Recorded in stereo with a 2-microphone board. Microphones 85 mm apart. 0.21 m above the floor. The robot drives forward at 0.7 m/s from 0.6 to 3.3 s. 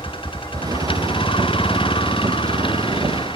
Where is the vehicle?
85° left; by 3.4 s 80° left.